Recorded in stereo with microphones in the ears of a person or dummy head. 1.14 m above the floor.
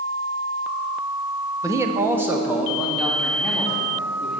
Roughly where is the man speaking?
Centre.